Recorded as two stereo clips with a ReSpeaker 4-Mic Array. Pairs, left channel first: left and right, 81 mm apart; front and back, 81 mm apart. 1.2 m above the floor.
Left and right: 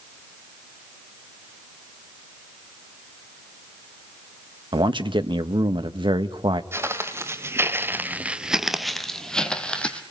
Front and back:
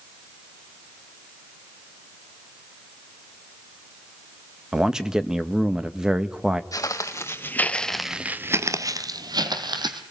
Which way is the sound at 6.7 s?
35° right.